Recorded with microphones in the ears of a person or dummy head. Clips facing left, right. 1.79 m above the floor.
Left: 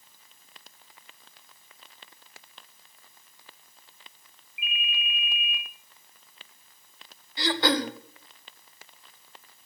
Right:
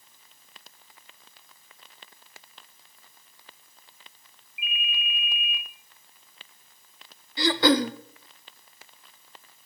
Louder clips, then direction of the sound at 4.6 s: Even; 30° left (ahead or behind).